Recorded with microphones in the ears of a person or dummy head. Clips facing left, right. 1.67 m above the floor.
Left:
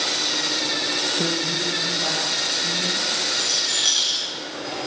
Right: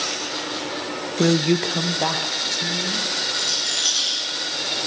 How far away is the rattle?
About 4.5 m.